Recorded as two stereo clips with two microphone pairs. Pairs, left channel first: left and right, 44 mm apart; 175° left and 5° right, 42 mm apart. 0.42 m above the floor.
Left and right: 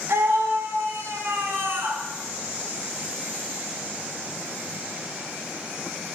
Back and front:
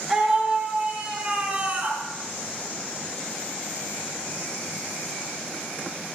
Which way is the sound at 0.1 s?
85° right.